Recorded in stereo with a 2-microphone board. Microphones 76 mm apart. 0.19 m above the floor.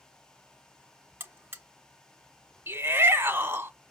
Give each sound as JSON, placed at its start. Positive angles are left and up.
{"t": 1.2, "sound": "a buzzer", "side_deg": -30, "distance_m": 1.4}
{"t": 2.7, "sound": "a shout", "side_deg": -30, "distance_m": 1.8}